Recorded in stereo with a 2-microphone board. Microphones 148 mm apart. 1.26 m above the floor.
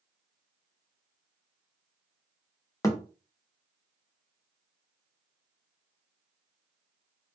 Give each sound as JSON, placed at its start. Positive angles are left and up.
{"t": 2.8, "sound": "a thud", "side_deg": 20, "distance_m": 0.5}